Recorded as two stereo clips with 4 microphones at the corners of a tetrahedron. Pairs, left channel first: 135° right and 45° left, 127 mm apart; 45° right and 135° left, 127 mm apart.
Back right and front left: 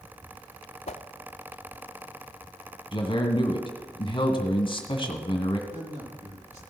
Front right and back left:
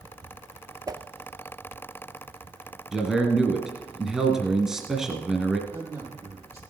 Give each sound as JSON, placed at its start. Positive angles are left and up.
{"t": 0.9, "sound": "a whoosh", "azimuth_deg": -165, "distance_m": 0.5}
{"t": 2.9, "sound": "a man speaking", "azimuth_deg": -140, "distance_m": 1.9}
{"t": 5.7, "sound": "a man speaking", "azimuth_deg": 70, "distance_m": 4.5}